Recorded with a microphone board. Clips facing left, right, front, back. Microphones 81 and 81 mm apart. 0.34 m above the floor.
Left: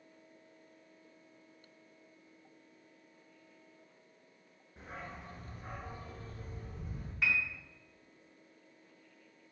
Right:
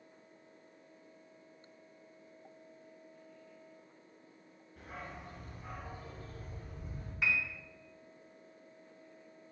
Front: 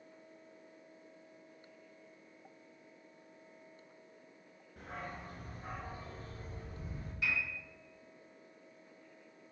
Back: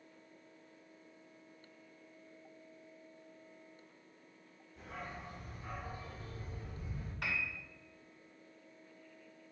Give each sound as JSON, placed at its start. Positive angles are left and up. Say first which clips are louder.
{"t": 4.8, "sound": "a dog barking", "louder": "even, front 2 dB", "azimuth_deg": 30, "distance_m": 2.0}
{"t": 7.2, "sound": "a piano", "louder": "left 1 dB, front 2 dB", "azimuth_deg": -175, "distance_m": 3.0}